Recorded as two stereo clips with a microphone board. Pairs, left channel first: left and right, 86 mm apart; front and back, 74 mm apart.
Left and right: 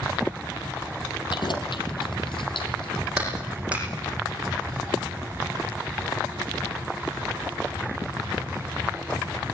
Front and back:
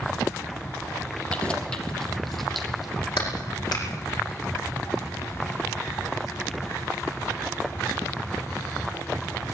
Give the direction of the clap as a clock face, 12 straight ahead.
1 o'clock.